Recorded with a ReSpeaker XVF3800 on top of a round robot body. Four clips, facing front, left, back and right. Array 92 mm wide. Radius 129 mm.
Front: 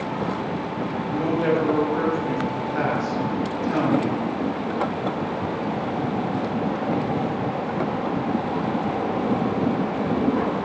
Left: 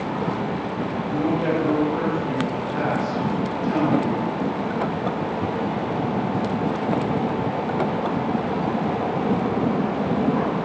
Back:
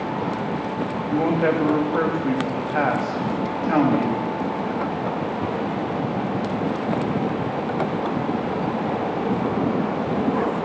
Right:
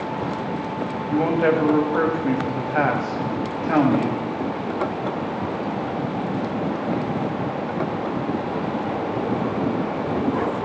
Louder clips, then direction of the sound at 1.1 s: Right 4 dB, back 2 dB; 125° right.